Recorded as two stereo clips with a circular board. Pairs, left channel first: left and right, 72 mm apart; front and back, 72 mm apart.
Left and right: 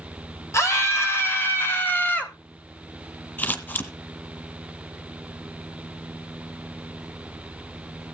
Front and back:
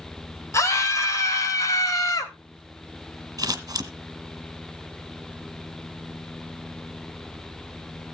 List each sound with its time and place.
0.5 s a scream: 45° left, 3.5 m; by 2.3 s 25° left, 2.5 m
3.4 s scissors: 150° left, 1.4 m